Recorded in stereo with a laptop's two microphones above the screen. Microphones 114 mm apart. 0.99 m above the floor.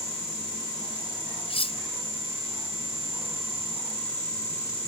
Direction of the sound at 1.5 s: 55° left (ahead or behind).